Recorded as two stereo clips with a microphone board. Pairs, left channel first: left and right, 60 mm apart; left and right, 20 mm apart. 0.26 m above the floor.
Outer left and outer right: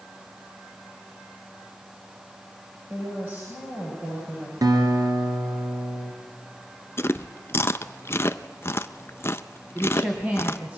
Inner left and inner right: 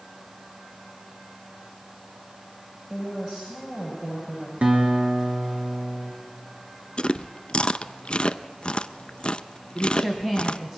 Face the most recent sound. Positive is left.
turn(degrees=-20)  # may be behind; listen again after turning